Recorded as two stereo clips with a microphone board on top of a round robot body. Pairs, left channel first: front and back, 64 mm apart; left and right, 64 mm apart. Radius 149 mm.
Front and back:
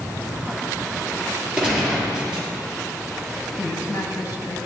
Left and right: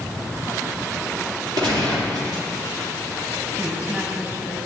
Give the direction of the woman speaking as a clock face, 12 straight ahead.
1 o'clock.